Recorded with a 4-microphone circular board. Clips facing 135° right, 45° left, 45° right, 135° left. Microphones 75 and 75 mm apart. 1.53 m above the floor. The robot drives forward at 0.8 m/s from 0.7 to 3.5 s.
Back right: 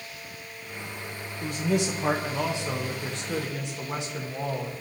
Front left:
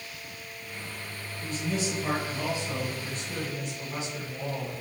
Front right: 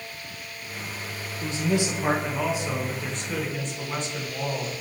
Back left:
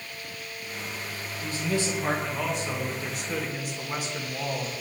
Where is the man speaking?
110° right, 1.9 m; by 4.7 s 145° right, 3 m.